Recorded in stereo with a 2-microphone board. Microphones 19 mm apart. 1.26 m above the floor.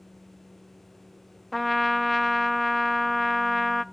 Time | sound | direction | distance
1.5 | a trumpet | centre (ahead or behind) | 0.6 m